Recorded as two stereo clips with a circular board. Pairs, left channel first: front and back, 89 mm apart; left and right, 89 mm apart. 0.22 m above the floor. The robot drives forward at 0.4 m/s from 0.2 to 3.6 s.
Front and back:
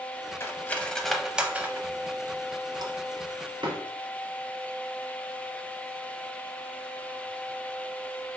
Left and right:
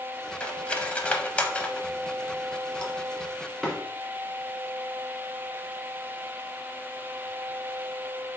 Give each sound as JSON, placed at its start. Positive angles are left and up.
{"t": 0.4, "sound": "cutlery clinking", "azimuth_deg": 25, "distance_m": 0.6}